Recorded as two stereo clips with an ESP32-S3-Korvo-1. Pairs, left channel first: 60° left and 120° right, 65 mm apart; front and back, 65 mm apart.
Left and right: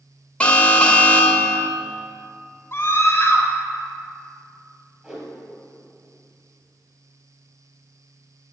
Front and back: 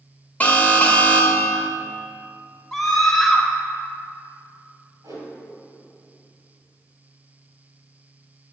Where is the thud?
I don't hear a thud.